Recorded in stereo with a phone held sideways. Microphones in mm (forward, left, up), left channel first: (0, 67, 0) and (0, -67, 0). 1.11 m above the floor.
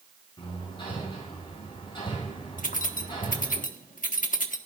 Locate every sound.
0.4 s hammering: 40° left (ahead or behind), 10 m
2.6 s keys jangling: 80° left, 1.5 m